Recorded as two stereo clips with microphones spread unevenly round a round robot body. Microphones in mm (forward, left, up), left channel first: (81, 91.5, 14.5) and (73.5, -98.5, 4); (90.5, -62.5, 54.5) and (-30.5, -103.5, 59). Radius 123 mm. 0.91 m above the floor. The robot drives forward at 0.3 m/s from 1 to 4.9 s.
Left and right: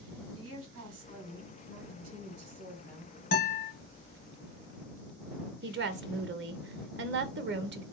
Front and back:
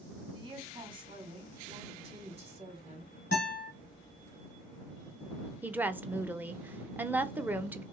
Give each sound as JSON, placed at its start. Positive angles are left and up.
{"t": 0.3, "sound": "a woman speaking", "azimuth_deg": -110, "distance_m": 1.7}
{"t": 3.3, "sound": "a guitar", "azimuth_deg": 60, "distance_m": 1.0}
{"t": 5.6, "sound": "a woman speaking", "azimuth_deg": -85, "distance_m": 0.6}